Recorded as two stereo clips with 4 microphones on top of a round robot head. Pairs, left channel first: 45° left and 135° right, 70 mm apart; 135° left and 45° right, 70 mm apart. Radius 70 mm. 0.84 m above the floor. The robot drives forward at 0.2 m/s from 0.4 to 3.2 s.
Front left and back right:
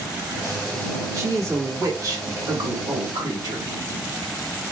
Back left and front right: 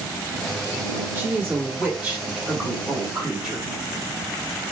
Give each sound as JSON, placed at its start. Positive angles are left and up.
{"t": 1.1, "sound": "a woman speaking", "azimuth_deg": -105, "distance_m": 1.3}